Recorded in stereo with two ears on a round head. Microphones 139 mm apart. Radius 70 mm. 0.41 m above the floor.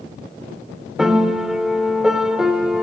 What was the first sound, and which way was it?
A piano, 5° right (ahead or behind).